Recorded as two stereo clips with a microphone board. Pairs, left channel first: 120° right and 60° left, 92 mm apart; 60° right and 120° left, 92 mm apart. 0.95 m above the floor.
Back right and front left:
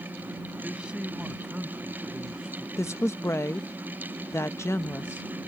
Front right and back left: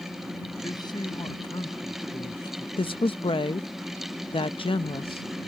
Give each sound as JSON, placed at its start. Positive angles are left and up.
{"t": 0.6, "sound": "a man speaking", "azimuth_deg": -20}
{"t": 2.8, "sound": "a woman speaking", "azimuth_deg": -60}